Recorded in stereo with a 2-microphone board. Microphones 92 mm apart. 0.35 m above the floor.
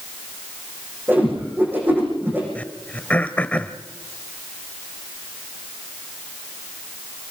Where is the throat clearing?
15° left (ahead or behind), 1.0 m.